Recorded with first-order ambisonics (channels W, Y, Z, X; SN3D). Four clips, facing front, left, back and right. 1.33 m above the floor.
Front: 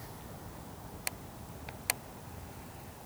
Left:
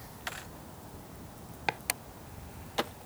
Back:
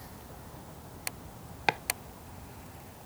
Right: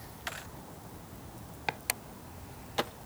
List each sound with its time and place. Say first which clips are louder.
1.7 s chopping: left 2 dB, back 21 dB; 170° left